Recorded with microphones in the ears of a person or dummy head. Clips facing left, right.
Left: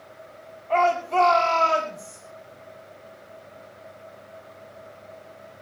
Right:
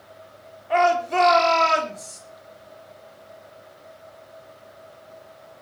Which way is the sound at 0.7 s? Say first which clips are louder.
Right 2 dB; 15° right (ahead or behind).